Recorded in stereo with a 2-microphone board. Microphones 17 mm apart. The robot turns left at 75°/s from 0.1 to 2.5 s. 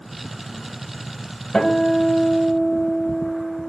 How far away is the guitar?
About 1.2 m.